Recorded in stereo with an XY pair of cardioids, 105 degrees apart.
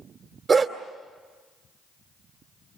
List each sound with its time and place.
0.5 s a dog barking: 45° right, 2.5 m